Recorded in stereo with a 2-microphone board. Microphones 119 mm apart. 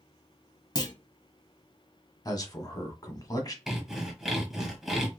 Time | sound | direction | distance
0.8 | a clunk | 35° left (ahead or behind) | 0.7 m
2.2 | a man speaking | 30° left (ahead or behind) | 1.3 m
3.7 | sawing | 5° right (ahead or behind) | 1.3 m